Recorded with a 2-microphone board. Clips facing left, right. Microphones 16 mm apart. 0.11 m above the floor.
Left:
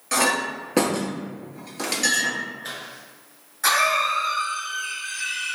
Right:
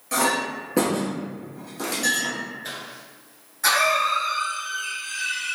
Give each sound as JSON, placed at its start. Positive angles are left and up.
{"t": 0.1, "sound": "a clink", "side_deg": 30, "distance_m": 1.0}
{"t": 2.6, "sound": "a cough", "side_deg": 5, "distance_m": 1.5}